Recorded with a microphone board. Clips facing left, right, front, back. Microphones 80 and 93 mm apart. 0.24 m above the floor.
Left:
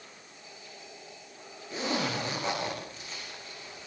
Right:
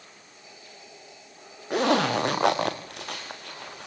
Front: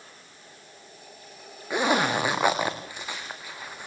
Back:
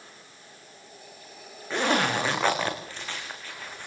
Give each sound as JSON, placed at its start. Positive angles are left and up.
{"t": 1.7, "sound": "a zipper", "azimuth_deg": -75, "distance_m": 4.0}